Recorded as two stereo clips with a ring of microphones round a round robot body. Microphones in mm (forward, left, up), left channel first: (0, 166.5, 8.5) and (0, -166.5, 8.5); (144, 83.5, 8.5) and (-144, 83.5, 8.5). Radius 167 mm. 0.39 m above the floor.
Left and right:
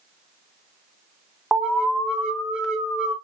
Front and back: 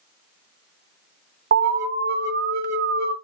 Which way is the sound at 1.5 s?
175° right.